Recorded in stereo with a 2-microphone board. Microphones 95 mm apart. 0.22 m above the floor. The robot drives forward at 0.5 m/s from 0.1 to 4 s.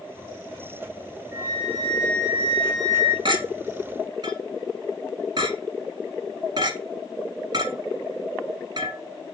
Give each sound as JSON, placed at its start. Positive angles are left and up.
{"t": 1.3, "sound": "a flute", "side_deg": -30, "distance_m": 2.0}
{"t": 3.2, "sound": "a clink", "side_deg": -55, "distance_m": 1.3}